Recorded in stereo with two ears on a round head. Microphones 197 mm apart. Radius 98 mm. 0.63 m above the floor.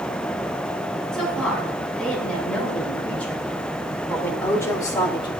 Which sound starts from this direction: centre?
A woman speaking, at 1.1 s.